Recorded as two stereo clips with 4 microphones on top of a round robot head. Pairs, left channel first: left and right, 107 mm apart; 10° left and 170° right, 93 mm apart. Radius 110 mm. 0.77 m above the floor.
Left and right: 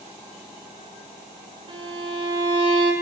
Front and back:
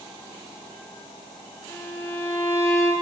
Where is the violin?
60° right, 7.5 m.